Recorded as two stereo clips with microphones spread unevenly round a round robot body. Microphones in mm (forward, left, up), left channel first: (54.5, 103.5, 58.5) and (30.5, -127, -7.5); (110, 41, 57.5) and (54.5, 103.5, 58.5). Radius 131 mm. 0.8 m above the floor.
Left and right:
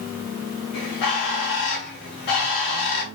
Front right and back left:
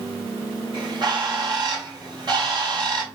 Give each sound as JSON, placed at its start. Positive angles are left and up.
{"t": 0.7, "sound": "a bird", "azimuth_deg": 95, "distance_m": 2.5}